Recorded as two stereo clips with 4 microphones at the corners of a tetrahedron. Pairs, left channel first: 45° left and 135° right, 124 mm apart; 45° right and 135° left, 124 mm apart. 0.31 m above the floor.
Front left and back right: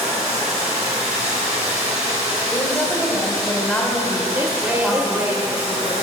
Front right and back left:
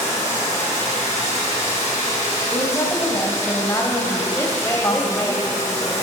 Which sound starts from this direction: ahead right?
A woman speaking, at 2.5 s.